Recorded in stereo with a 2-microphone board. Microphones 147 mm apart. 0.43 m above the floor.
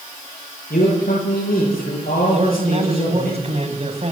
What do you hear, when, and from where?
0.7 s a man speaking: 80° left, 10 m; by 3.3 s 75° left (ahead or behind), 11 m
2.3 s a man speaking: 45° right (ahead or behind), 3.5 m